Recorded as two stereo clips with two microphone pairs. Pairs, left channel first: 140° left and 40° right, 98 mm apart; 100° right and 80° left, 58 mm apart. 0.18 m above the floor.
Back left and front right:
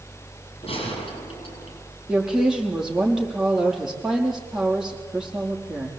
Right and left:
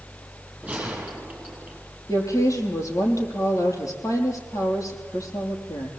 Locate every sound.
0.6 s a gunshot: 145° left, 6.5 m
2.1 s a woman speaking: 120° right, 5.5 m